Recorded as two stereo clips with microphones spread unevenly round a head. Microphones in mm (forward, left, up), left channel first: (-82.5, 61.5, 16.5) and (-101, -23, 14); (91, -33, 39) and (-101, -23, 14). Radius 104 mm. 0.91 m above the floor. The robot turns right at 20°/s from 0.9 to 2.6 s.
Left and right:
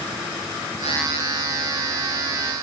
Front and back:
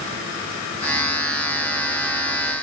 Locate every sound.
Only background noise.